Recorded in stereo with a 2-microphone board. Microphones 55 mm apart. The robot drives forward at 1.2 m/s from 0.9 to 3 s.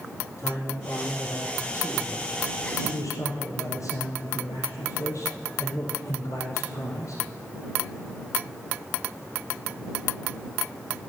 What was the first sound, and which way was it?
A man speaking, 45° left (ahead or behind).